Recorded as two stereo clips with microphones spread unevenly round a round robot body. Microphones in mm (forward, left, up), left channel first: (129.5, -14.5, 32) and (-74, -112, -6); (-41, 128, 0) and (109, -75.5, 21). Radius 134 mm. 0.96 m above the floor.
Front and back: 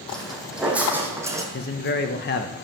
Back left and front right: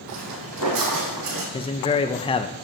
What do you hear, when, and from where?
0.1 s footsteps: 55° right, 2 m; by 1.4 s 75° right, 2.5 m
1.5 s a man speaking: 70° left, 0.5 m